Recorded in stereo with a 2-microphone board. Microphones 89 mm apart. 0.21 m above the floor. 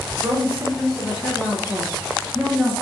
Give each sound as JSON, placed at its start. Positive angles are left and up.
{"t": 0.2, "sound": "a woman speaking", "side_deg": -15, "distance_m": 3.0}